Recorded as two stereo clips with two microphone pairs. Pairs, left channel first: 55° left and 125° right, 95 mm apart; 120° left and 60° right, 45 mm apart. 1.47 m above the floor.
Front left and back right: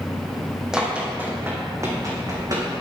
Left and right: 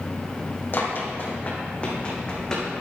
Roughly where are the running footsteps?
Behind left.